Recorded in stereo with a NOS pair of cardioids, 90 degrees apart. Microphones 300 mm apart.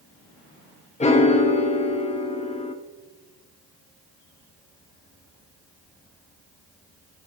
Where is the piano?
25° left, 0.6 m.